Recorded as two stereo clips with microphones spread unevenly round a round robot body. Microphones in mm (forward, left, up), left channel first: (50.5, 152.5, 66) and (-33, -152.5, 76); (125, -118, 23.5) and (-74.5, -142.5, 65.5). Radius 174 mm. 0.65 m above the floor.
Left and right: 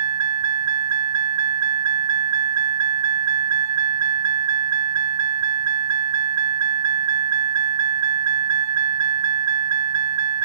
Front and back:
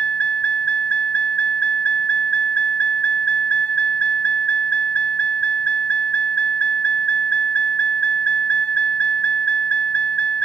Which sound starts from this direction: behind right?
A vehicle, at 0.0 s.